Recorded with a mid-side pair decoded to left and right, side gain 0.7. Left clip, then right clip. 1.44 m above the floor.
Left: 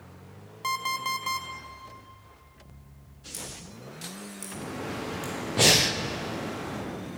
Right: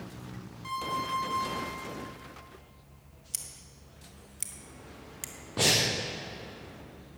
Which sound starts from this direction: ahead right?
Scissors, at 3.3 s.